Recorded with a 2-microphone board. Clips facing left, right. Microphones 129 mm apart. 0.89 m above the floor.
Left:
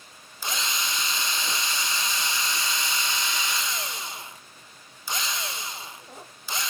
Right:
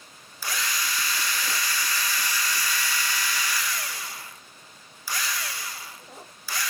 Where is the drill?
20° left (ahead or behind), 0.7 m.